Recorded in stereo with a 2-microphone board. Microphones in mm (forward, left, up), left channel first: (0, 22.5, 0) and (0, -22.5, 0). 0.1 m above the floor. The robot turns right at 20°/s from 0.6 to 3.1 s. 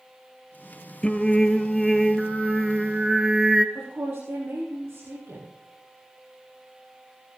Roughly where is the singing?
Behind left.